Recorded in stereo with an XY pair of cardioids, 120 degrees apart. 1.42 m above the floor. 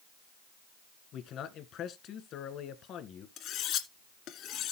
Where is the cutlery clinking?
70° left, 1.9 m.